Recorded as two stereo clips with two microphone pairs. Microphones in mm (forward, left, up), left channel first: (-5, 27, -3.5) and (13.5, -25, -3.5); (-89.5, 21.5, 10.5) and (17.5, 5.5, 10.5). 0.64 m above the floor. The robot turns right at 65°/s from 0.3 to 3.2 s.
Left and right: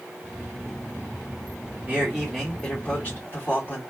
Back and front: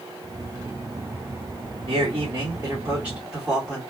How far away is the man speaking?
About 1.9 m.